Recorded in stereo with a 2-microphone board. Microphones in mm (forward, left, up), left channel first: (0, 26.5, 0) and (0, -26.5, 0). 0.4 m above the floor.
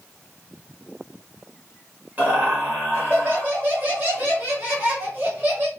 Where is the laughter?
30° right (ahead or behind), 1.6 m.